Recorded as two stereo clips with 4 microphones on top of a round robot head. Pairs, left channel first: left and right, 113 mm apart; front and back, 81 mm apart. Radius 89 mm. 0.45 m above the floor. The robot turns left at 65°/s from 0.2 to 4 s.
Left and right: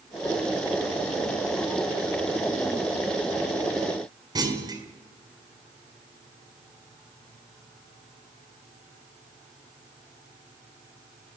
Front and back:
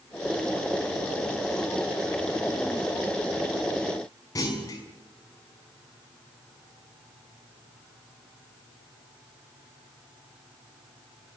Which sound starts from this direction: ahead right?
A clunk, at 4.3 s.